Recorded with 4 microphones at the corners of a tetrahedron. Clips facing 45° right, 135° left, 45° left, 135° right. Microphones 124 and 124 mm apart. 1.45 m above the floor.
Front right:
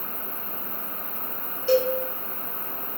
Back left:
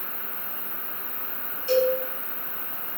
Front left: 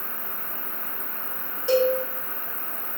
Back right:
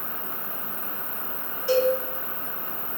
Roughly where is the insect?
Left.